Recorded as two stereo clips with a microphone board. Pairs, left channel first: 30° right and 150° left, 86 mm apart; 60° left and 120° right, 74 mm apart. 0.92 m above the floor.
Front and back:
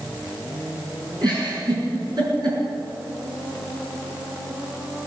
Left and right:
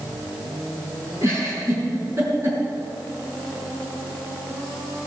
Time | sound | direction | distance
1.2 | a giggle | 175° right | 6 m